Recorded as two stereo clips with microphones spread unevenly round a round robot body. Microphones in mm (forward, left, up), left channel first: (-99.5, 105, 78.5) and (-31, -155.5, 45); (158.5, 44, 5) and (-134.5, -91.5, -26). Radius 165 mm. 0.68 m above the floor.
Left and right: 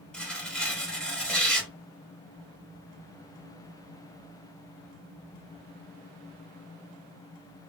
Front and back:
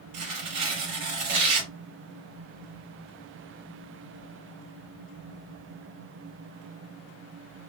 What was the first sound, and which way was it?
Tearing paper, 165° right.